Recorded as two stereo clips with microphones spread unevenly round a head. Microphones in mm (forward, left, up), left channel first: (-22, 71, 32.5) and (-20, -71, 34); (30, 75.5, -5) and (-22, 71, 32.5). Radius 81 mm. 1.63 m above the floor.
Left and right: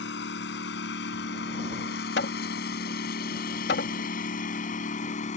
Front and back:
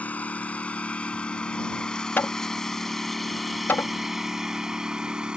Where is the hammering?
70° left.